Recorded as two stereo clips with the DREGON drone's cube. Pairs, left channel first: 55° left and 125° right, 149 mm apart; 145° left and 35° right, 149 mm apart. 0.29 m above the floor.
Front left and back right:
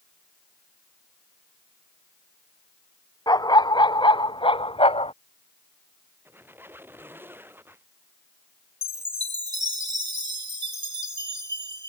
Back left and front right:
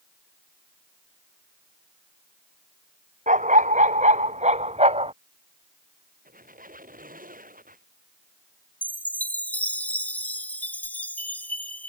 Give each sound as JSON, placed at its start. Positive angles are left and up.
{"t": 3.3, "sound": "a dog barking", "azimuth_deg": -5}
{"t": 6.2, "sound": "a squeak", "azimuth_deg": -50}
{"t": 8.8, "sound": "a chime", "azimuth_deg": -145}